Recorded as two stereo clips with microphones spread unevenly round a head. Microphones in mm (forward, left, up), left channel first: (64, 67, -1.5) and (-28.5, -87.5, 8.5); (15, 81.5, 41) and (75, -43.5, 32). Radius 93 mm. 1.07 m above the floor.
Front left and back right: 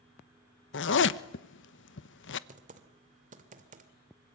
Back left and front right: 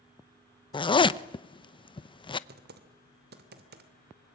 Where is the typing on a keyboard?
70° right, 2.5 m.